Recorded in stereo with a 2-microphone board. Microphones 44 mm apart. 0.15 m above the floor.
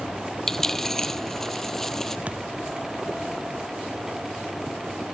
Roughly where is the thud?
Right.